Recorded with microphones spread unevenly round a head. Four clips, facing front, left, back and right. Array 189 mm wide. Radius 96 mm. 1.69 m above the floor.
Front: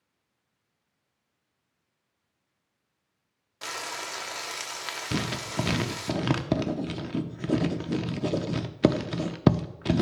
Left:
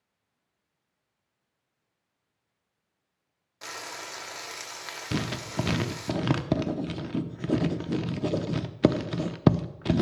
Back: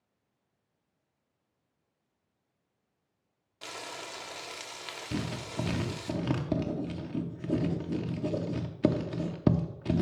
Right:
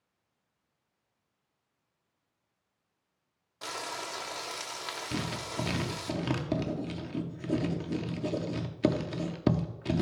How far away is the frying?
About 0.7 m.